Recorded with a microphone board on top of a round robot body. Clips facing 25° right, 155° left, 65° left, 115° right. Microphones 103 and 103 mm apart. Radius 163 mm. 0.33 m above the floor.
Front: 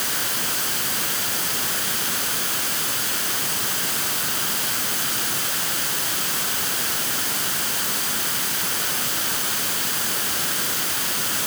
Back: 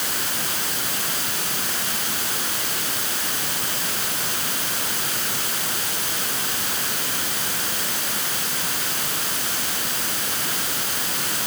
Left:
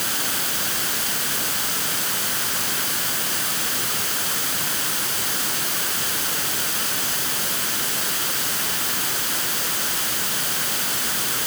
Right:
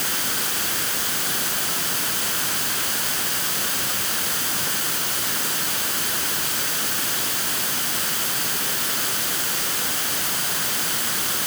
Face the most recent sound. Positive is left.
No sound to turn to.